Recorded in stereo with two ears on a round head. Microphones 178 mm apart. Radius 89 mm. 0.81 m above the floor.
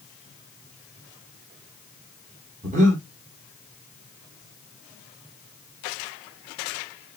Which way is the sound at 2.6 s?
35° right (ahead or behind).